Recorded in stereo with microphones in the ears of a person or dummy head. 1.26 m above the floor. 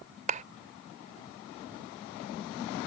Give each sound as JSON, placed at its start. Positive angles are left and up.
{"t": 0.3, "sound": "a clap", "side_deg": -40}